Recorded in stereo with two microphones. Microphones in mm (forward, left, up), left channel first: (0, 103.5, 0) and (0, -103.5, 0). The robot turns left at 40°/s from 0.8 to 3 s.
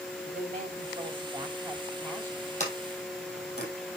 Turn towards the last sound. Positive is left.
turn(degrees=50)  # may be behind; listen again after turning